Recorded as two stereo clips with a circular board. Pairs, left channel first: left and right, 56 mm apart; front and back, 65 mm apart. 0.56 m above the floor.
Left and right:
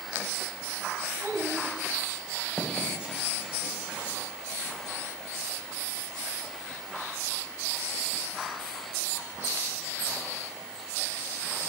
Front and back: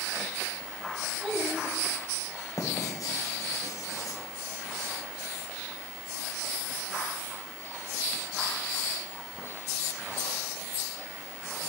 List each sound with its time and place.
1.2 s a child speaking: 100° right, 4 m
2.6 s writing: 20° right, 1.8 m